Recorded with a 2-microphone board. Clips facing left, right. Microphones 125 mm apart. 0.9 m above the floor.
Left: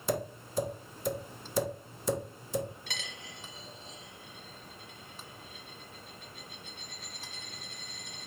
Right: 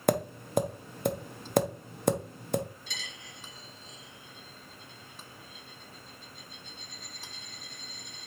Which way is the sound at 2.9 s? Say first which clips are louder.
Left 2 dB; 60° left (ahead or behind).